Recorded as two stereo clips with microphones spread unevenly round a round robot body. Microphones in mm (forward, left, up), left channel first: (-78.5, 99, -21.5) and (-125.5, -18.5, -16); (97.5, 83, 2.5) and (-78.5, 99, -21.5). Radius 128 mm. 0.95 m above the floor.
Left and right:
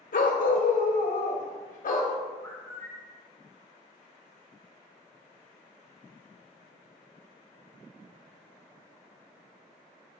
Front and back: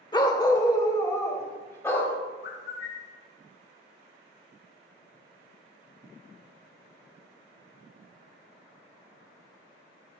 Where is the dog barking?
60° left, 1.5 m; by 2.1 s 70° left, 2.5 m.